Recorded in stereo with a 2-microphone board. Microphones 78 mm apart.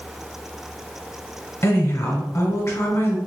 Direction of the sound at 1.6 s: 35° left (ahead or behind).